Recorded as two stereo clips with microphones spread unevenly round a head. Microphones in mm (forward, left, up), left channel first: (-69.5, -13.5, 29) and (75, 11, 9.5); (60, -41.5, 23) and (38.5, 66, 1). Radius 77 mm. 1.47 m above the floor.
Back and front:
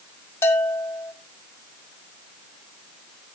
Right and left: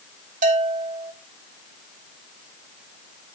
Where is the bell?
120° left, 1.6 m.